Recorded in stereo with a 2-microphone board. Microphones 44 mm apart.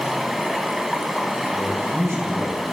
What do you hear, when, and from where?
0.0 s running water: 5° right (ahead or behind), 1.0 m
1.5 s a man speaking: 70° right (ahead or behind), 3.5 m